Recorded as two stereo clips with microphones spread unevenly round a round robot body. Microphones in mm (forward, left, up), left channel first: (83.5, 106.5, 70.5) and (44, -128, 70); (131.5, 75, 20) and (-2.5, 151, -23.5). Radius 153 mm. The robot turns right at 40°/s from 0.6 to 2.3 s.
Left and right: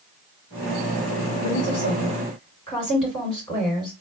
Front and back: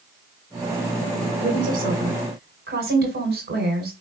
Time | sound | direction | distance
1.4 | a woman speaking | 115° left | 2 m